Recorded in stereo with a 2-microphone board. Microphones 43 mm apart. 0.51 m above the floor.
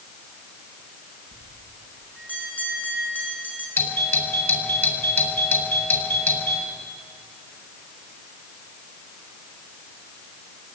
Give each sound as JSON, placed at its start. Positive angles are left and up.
{"t": 1.3, "sound": "a bell", "side_deg": 40, "distance_m": 6.5}
{"t": 3.8, "sound": "a doorbell", "side_deg": 55, "distance_m": 5.0}